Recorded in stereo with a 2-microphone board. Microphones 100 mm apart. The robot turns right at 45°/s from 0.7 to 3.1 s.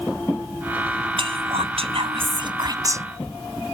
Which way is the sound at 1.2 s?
115° right.